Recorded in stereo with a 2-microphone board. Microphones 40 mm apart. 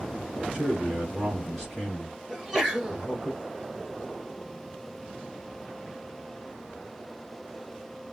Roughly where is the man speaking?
Centre.